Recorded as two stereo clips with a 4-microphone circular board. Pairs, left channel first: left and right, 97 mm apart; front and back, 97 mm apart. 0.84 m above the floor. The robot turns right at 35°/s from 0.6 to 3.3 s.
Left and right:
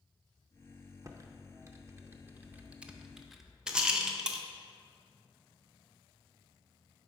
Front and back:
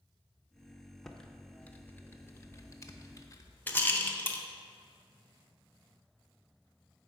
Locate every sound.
1.0 s typing on a keyboard: 85° right, 0.5 m; by 3.6 s 5° right, 0.5 m
3.7 s a rattle: 25° right, 0.6 m